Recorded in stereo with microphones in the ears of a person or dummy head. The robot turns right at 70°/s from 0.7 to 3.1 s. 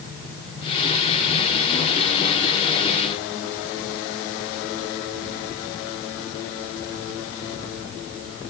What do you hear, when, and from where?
Only background noise.